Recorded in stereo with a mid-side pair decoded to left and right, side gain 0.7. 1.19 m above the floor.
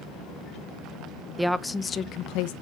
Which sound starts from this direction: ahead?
A woman speaking, at 1.4 s.